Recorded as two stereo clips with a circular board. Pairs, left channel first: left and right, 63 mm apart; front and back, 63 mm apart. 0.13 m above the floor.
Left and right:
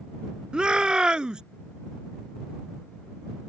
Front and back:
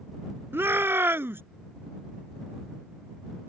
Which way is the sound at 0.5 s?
160° right.